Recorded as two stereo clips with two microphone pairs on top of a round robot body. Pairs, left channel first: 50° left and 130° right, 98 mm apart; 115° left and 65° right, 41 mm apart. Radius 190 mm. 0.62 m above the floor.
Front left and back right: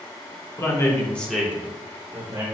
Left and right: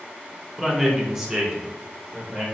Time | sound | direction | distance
0.6 | a man speaking | 30° left | 1.2 m